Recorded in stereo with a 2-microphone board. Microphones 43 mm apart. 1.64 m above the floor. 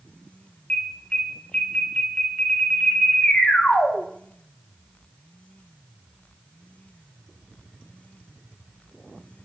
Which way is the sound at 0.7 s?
25° left (ahead or behind).